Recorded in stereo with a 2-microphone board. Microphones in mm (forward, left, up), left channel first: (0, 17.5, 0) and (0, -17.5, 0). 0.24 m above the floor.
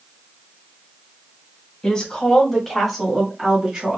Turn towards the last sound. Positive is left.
turn(degrees=-20)  # may be behind; listen again after turning